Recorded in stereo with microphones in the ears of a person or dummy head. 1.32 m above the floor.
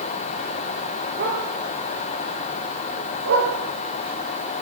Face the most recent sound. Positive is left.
turn(degrees=-80)